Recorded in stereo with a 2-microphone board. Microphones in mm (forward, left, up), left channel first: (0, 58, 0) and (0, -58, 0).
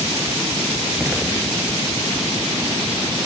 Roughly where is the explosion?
Centre.